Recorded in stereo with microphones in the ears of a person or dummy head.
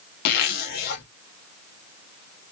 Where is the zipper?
50° left (ahead or behind), 0.7 m.